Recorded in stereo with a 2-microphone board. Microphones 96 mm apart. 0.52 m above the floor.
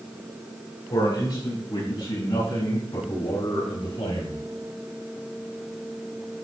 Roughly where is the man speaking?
Left.